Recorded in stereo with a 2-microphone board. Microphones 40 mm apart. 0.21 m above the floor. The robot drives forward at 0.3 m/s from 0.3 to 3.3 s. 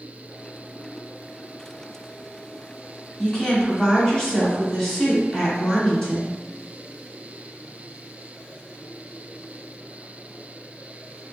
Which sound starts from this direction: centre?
A woman speaking, at 3.2 s.